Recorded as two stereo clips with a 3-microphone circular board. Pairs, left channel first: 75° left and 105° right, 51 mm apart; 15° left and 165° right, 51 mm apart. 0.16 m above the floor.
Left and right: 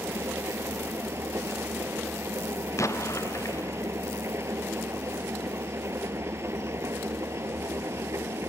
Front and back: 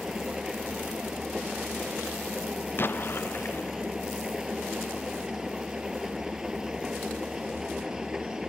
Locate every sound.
0.0 s an engine running: 85° right
2.8 s an explosion: 60° left